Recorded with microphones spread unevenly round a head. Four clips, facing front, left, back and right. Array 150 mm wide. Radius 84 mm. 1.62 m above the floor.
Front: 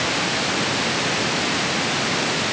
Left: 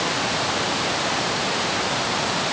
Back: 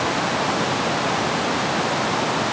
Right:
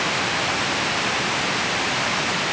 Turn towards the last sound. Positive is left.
No sound to turn to.